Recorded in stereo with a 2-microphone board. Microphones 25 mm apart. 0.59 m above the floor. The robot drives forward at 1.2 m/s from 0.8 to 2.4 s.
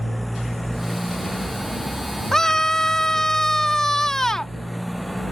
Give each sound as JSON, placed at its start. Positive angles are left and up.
{"t": 0.0, "sound": "a motorcycle", "side_deg": 5}
{"t": 2.3, "sound": "a scream", "side_deg": 25}